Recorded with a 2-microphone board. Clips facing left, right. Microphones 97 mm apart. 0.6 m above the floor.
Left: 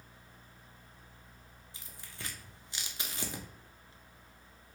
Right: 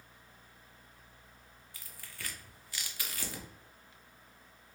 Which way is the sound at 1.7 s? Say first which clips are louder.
Even; 25° left (ahead or behind).